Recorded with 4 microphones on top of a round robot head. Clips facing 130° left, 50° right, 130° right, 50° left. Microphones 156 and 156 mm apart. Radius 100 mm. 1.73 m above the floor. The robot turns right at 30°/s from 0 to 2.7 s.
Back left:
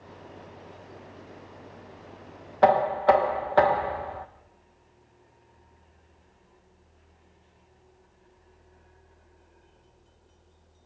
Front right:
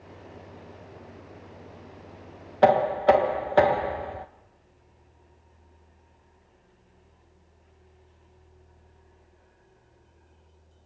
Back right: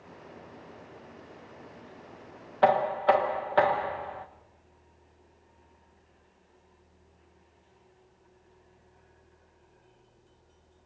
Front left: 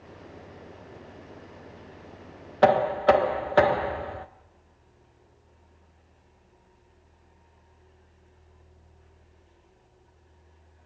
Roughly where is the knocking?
Ahead.